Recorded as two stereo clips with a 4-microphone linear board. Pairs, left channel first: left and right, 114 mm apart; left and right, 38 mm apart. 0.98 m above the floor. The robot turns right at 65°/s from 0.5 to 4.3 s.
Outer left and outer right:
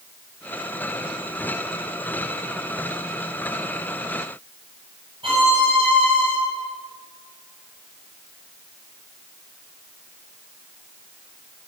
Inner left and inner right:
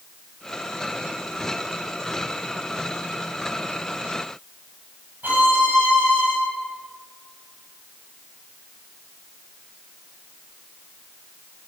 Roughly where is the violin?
Right.